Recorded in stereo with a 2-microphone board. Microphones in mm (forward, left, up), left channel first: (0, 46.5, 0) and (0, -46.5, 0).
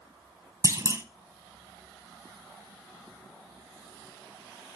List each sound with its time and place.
0.6 s a clunk: 35° right (ahead or behind), 0.9 m